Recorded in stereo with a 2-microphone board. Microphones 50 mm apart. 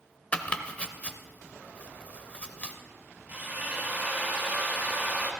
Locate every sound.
0.3 s chopping: 25° left (ahead or behind), 0.8 m
3.3 s a drill: 30° right (ahead or behind), 1.3 m